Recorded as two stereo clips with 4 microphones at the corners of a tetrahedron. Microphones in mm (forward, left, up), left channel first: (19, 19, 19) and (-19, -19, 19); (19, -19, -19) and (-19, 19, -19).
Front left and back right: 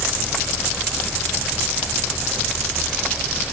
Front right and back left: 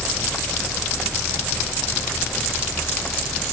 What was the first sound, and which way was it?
Only background noise.